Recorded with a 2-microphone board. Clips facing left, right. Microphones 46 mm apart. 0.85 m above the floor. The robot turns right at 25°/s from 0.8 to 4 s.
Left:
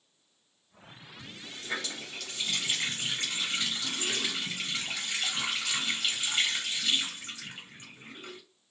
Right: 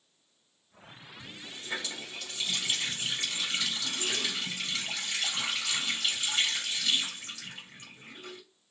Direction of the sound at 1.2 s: 85° left.